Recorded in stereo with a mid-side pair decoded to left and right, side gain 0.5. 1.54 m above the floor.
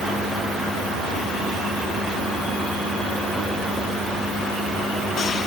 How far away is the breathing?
No breathing in this recording.